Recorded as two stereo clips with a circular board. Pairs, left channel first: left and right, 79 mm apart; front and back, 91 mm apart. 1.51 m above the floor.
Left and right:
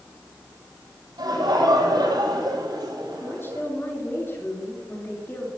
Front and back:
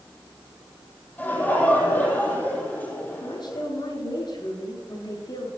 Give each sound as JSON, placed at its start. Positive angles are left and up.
{"t": 1.2, "sound": "laughter", "azimuth_deg": -70, "distance_m": 8.5}
{"t": 3.2, "sound": "a woman speaking", "azimuth_deg": 30, "distance_m": 7.5}